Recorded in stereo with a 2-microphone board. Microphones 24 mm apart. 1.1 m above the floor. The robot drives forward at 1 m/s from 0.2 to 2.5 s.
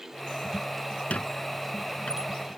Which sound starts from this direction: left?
A squeak, at 1.1 s.